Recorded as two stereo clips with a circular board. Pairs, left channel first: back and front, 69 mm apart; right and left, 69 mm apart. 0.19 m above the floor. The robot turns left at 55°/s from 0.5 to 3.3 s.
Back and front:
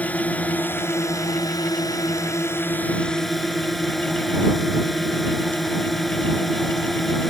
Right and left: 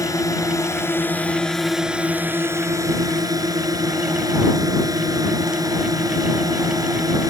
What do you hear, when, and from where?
0.0 s a drone: 115° right; by 7.3 s 90° left